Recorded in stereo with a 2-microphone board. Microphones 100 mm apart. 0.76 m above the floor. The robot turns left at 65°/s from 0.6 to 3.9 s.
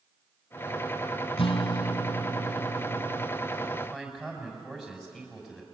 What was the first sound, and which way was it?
A guitar, 95° left.